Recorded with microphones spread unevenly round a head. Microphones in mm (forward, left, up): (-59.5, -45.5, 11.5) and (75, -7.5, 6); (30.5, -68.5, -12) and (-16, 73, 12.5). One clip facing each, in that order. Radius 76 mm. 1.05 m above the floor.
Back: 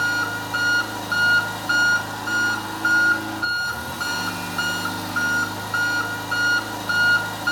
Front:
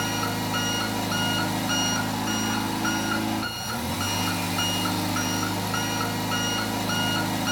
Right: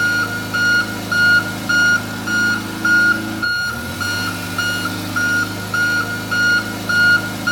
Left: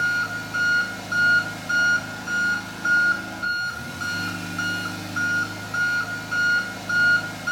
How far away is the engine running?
About 1.3 m.